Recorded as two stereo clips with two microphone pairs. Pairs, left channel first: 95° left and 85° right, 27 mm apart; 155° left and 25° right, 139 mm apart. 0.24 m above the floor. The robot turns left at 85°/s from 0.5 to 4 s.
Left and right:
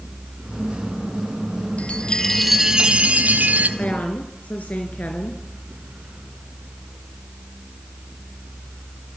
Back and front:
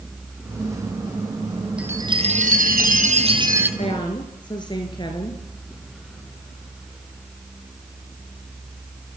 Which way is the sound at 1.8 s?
60° left.